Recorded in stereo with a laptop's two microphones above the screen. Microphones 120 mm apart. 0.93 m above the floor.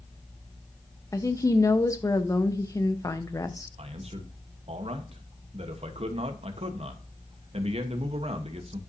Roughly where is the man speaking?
Right.